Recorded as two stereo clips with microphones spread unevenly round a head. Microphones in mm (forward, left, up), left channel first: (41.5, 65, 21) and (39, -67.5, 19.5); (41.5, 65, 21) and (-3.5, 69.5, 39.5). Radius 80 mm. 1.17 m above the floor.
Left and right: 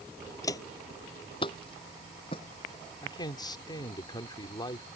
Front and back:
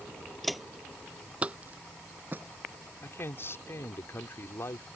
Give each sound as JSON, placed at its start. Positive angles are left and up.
{"t": 0.4, "sound": "footsteps", "azimuth_deg": 130}
{"t": 3.0, "sound": "a man speaking", "azimuth_deg": 30}